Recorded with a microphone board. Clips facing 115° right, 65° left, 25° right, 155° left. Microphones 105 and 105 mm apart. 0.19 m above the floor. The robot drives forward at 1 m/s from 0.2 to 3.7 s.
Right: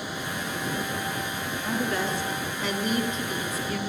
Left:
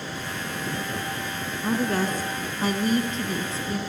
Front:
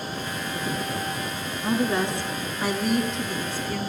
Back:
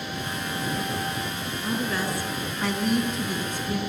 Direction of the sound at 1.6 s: 30° left.